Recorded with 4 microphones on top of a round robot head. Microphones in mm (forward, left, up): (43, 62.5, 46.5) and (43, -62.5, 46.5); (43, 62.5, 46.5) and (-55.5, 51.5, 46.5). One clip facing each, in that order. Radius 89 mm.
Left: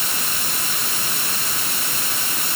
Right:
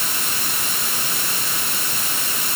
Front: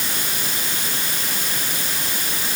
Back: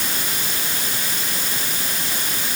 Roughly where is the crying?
No crying in this recording.